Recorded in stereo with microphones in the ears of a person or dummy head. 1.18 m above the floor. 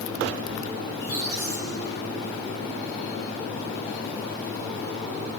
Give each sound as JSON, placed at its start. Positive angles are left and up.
{"t": 0.9, "sound": "a squeak", "side_deg": -75, "distance_m": 3.5}